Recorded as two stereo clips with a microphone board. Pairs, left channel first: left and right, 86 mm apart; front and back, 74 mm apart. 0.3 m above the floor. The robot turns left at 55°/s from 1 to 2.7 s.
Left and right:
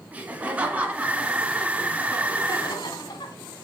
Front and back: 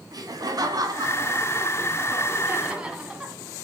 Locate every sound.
0.1 s laughter: 160° right, 2.5 m; by 3.4 s 105° left, 2.5 m